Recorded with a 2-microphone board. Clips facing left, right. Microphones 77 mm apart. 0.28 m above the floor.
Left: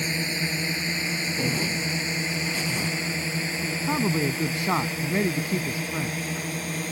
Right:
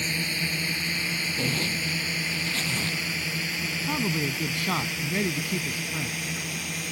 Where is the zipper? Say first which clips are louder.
Left 2 dB; 10° left (ahead or behind).